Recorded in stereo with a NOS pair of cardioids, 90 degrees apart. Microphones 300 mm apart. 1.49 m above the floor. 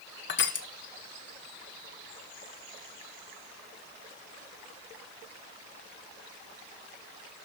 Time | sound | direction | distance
0.3 | crushing | 35° left | 1.2 m